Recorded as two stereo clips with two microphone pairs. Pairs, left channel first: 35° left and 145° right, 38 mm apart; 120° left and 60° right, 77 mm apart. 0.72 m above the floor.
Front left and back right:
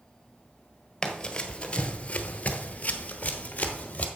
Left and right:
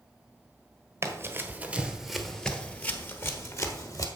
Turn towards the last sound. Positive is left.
turn(degrees=85)